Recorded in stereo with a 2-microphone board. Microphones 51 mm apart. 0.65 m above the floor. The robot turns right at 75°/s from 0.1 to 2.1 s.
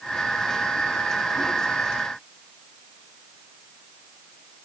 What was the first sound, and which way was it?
Only background noise.